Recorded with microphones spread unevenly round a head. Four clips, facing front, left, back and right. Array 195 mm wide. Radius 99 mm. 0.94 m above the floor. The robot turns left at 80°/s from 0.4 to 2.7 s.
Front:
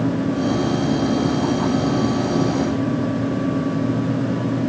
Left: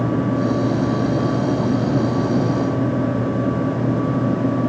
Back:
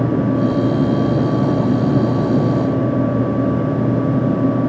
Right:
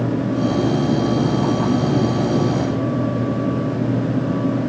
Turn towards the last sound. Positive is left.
No sound to turn to.